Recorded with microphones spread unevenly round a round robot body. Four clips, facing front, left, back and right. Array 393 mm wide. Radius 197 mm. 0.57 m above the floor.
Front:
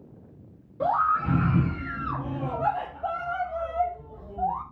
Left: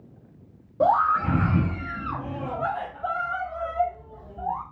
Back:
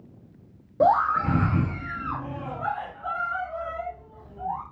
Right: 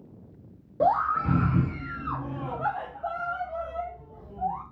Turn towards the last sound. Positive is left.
turn(degrees=20)